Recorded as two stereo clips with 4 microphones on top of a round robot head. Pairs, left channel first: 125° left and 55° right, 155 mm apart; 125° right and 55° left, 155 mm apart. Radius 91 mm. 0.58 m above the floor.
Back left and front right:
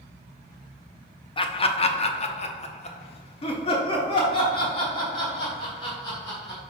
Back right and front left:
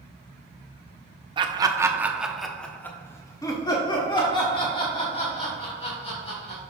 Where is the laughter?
90° left, 0.9 m; by 6.6 s 170° right, 2.5 m.